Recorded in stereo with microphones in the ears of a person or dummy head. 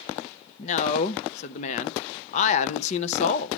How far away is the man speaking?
About 0.6 m.